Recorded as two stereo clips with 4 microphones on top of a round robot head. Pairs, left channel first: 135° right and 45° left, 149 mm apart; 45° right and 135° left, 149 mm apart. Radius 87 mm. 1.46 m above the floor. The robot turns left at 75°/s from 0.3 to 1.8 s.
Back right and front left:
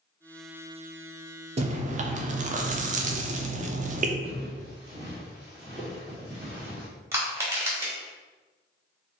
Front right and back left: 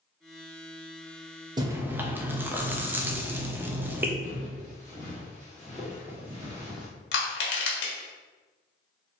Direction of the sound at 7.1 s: 30° right.